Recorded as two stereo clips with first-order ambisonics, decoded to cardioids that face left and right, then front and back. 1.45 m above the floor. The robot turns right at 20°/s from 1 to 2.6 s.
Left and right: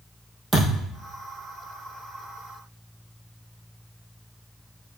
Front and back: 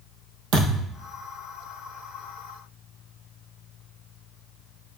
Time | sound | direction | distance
0.5 | a thud | 175° right | 2.5 m